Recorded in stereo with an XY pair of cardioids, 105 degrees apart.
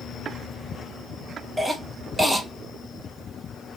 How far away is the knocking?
No knocking in this recording.